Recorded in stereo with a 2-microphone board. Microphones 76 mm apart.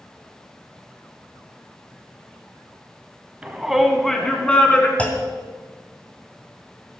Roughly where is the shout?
Centre.